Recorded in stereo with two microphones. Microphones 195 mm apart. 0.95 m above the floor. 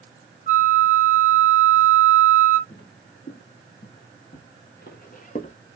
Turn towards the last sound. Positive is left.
turn(degrees=35)  # may be behind; listen again after turning